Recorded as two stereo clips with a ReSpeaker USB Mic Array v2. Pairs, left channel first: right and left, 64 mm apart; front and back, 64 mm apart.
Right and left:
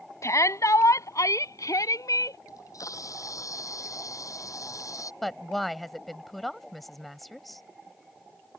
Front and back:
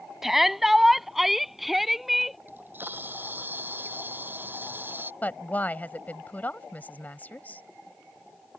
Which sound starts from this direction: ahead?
A woman speaking, at 5.2 s.